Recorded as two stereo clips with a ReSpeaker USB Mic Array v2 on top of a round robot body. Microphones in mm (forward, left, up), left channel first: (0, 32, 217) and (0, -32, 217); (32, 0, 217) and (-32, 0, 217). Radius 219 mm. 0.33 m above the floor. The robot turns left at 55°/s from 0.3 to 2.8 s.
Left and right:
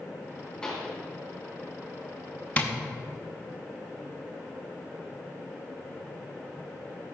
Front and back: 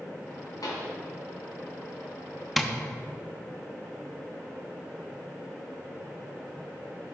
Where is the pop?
15° left, 2 m; by 0.9 s 5° right, 2 m.